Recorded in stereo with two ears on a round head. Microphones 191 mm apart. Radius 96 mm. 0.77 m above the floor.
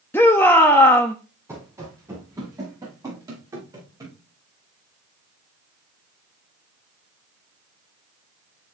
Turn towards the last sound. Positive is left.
turn(degrees=-20)  # may be behind; listen again after turning